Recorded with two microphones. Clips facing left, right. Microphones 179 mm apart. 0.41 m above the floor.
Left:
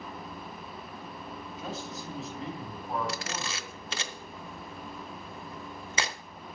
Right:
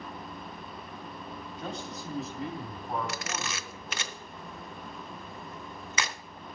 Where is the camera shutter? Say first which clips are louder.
Even; 30° left (ahead or behind), 0.8 m.